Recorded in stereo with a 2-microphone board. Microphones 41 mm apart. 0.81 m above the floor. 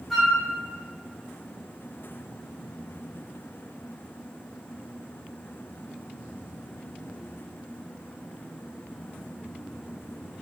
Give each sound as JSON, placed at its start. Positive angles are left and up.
{"t": 0.1, "sound": "a flute", "side_deg": 5, "distance_m": 0.7}